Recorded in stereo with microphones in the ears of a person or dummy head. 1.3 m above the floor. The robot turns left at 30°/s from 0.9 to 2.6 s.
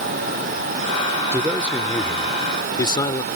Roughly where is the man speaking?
Behind.